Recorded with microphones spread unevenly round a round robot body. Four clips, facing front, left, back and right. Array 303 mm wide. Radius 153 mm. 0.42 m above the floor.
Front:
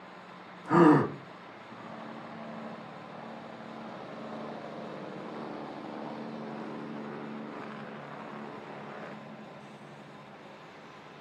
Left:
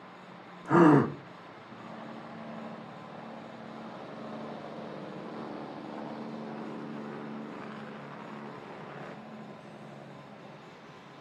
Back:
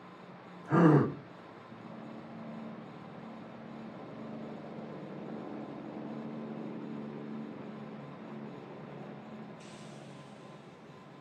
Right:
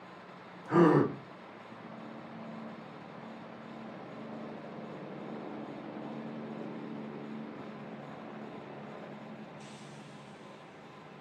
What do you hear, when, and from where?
0.7 s a gasp: 55° left, 3.5 m